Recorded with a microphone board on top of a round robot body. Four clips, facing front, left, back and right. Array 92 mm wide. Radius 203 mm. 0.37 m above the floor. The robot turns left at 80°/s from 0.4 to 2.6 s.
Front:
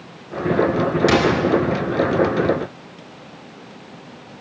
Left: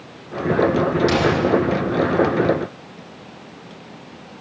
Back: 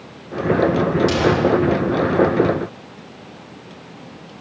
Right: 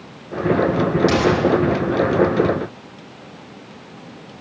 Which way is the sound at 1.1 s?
Straight ahead.